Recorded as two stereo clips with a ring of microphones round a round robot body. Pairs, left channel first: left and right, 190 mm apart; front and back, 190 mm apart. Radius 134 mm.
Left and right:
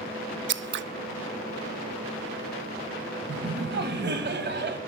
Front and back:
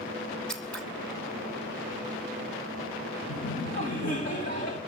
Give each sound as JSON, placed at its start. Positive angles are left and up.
{"t": 0.5, "sound": "scissors", "azimuth_deg": -85, "distance_m": 0.6}
{"t": 3.3, "sound": "laughter", "azimuth_deg": -60, "distance_m": 2.0}